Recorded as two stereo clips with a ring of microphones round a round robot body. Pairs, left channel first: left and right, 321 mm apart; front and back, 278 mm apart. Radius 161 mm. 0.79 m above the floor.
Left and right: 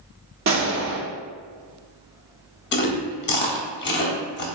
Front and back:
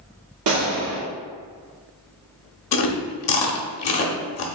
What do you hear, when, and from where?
0.5 s a gunshot: 145° right, 1.0 m
2.7 s chewing: 30° left, 0.7 m